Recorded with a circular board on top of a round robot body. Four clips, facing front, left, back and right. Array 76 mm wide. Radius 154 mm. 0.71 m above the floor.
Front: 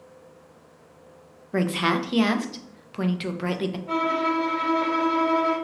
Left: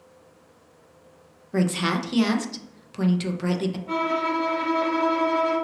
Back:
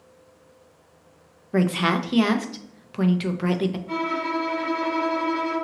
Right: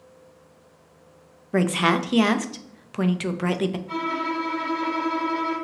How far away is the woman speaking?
About 0.5 m.